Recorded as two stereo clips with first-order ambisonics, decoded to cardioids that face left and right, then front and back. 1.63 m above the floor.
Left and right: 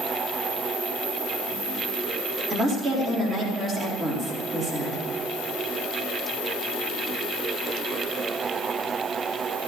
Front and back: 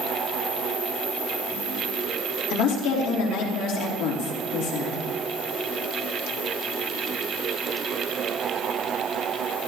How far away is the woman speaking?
About 4 m.